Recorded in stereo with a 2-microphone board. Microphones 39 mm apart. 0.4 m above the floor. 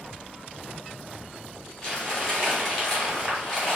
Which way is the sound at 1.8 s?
15° left (ahead or behind).